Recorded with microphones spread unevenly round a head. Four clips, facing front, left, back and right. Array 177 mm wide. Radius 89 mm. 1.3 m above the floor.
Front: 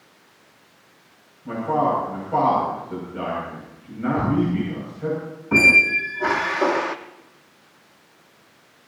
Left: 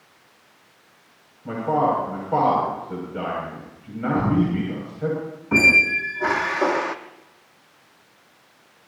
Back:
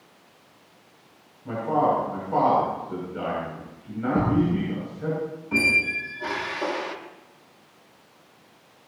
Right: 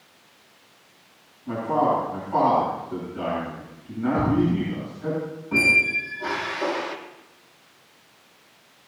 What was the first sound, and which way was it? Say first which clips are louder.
A man speaking: left 1 dB, front 1 dB; 95° left.